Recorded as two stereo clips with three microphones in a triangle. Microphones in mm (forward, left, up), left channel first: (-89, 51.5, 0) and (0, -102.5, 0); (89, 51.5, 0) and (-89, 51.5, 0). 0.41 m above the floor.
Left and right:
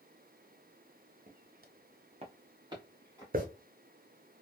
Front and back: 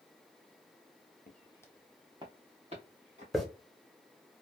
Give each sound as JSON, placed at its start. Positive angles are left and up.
{"t": 1.3, "sound": "footsteps", "azimuth_deg": -25, "distance_m": 0.7}
{"t": 3.3, "sound": "a hiss", "azimuth_deg": -90, "distance_m": 0.8}